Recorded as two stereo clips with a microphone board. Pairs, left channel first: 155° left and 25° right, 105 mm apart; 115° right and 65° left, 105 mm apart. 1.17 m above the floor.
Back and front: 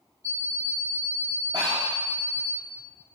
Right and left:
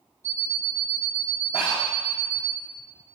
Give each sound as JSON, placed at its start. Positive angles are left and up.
{"t": 0.2, "sound": "an alarm clock", "azimuth_deg": 135, "distance_m": 1.4}
{"t": 1.5, "sound": "breathing", "azimuth_deg": -70, "distance_m": 4.0}